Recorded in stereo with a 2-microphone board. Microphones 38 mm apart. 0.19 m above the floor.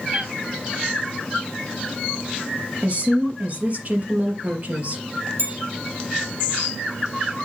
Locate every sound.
0.1 s a cat meowing: 25° right (ahead or behind), 8 m
2.8 s a woman speaking: 45° right (ahead or behind), 4.5 m
5.4 s a bell: 80° right, 5 m